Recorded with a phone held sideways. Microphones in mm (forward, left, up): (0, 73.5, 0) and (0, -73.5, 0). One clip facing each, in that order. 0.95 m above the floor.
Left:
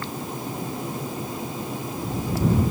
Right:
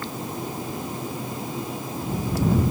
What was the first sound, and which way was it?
Only background noise.